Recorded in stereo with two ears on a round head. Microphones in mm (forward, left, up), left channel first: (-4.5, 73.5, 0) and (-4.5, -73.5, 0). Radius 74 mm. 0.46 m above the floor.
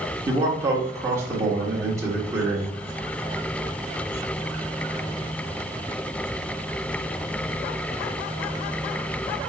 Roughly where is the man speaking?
Centre.